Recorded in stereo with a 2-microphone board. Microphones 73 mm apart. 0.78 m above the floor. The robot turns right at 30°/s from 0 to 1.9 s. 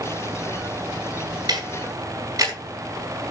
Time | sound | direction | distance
1.5 | ticking | 60° right (ahead or behind) | 4.5 m